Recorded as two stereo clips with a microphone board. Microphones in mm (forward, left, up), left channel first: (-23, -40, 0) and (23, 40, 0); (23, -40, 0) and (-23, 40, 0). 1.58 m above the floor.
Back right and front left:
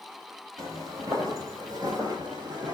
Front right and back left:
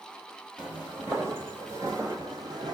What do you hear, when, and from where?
0.6 s footsteps: 55° left, 1.9 m; by 2.7 s 95° left, 2.5 m